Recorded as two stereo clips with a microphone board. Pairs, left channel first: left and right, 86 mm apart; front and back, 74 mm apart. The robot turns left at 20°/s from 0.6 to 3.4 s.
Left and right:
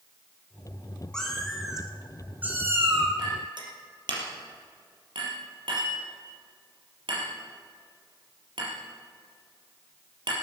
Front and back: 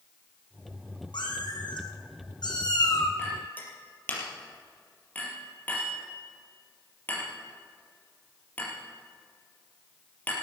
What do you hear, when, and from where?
1.1 s a cat meowing: 5° left, 3.5 m; by 3.1 s 30° right, 3.5 m
3.2 s a clink: 60° right, 4 m; by 10.3 s 65° right, 4 m